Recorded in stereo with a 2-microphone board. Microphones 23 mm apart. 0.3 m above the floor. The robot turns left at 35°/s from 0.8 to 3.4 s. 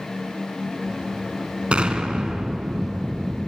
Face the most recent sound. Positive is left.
turn(degrees=-175)